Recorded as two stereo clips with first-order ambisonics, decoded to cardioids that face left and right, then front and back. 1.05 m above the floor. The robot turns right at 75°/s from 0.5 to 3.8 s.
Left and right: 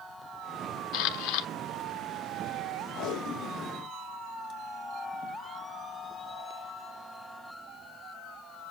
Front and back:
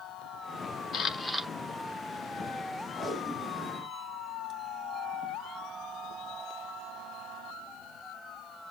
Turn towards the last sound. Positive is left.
turn(degrees=135)